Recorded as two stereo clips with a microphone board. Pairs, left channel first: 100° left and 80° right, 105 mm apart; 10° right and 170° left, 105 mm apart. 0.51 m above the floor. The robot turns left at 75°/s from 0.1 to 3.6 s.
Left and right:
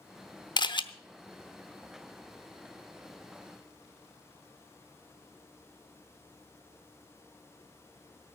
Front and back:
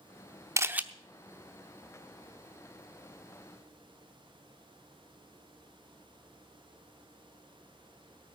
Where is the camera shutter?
115° left, 0.8 m; by 0.8 s 95° left, 0.8 m.